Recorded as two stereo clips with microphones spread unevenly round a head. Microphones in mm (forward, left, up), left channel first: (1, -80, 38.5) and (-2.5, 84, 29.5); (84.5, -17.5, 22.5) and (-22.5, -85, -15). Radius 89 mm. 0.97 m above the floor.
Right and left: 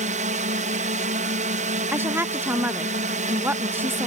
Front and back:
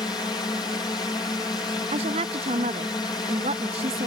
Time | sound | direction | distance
0.0 | a drone | 105° left | ?
1.9 | a woman speaking | 165° left | ?